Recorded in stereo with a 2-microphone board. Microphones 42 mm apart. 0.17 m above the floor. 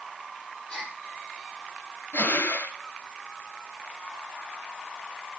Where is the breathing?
60° left (ahead or behind), 1.4 m.